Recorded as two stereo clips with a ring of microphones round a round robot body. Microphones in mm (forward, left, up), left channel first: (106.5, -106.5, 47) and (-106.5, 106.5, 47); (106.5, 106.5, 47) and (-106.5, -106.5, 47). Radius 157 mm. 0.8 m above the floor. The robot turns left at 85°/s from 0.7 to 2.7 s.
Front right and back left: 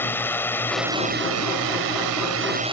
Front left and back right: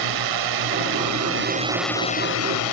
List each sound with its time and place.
0.0 s a drone: 130° right; by 2.7 s 60° left